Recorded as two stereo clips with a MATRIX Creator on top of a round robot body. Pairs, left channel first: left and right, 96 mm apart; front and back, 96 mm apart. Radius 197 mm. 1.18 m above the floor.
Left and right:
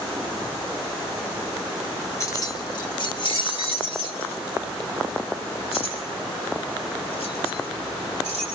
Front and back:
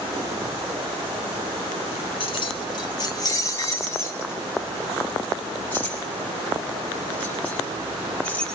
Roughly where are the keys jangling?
Ahead left.